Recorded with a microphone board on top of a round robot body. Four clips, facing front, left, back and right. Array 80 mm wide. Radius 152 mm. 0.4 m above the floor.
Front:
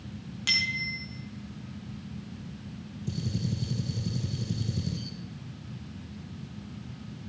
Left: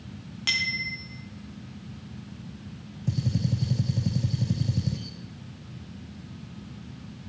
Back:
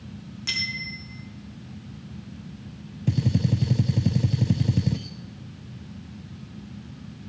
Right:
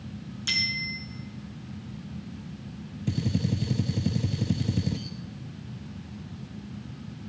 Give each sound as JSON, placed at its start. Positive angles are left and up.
{"t": 0.5, "sound": "a bicycle bell", "azimuth_deg": 80, "distance_m": 3.5}
{"t": 3.1, "sound": "a gunshot", "azimuth_deg": -170, "distance_m": 0.6}